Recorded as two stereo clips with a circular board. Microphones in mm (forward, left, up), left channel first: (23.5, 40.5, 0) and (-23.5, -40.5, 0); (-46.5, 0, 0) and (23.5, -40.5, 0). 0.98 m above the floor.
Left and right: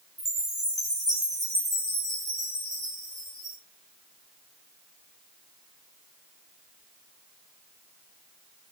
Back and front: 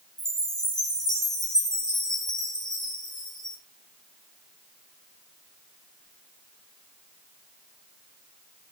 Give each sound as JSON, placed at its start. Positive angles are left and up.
{"t": 0.2, "sound": "a chime", "azimuth_deg": -175, "distance_m": 6.5}